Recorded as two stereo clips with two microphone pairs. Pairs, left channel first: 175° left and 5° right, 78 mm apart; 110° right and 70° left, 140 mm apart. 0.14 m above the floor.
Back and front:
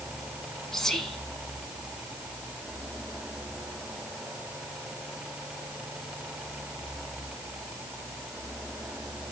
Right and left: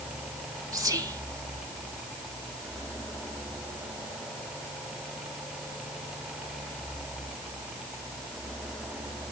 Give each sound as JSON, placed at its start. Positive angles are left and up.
{"t": 0.7, "sound": "whispering", "azimuth_deg": 100, "distance_m": 1.2}